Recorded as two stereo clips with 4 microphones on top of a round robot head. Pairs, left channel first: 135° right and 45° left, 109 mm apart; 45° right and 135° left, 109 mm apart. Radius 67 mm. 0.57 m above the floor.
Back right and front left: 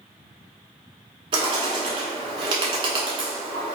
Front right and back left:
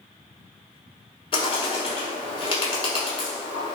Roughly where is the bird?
Ahead.